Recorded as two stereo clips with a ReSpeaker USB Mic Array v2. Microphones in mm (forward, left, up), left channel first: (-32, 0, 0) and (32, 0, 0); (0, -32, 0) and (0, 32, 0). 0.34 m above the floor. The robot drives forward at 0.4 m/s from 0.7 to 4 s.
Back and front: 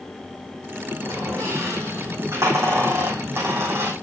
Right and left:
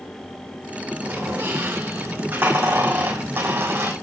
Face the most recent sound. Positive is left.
turn(degrees=45)